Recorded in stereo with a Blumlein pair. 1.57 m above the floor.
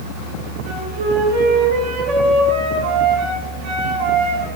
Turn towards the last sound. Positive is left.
turn(degrees=-45)